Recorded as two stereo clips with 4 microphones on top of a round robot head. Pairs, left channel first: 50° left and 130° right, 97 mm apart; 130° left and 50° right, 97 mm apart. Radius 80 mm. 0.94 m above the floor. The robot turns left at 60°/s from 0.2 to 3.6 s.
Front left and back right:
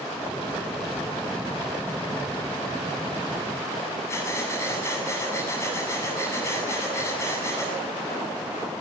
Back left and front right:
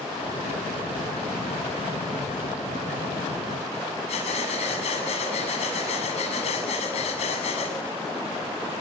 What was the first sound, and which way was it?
Breathing, 115° left.